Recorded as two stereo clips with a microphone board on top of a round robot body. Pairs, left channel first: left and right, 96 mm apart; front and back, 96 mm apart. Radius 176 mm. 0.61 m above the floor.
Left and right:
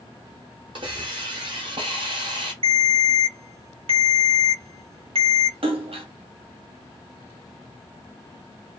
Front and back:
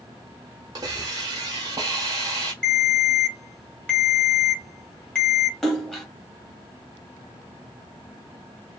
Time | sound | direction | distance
0.8 | a hiss | 125° right | 0.8 m
2.6 | a ringtone | 80° right | 1.0 m
5.6 | a splash | 85° right | 1.1 m